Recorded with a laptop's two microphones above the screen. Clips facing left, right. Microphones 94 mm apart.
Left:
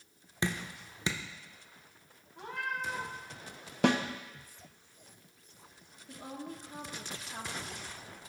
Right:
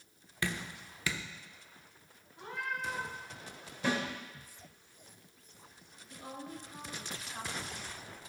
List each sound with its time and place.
0.4 s dripping: 25° left (ahead or behind), 0.5 m
2.4 s a cat meowing: 70° left (ahead or behind), 1.4 m
3.8 s a snare drum: 70° left (ahead or behind), 0.6 m
6.1 s a woman speaking: 65° left (ahead or behind), 1.4 m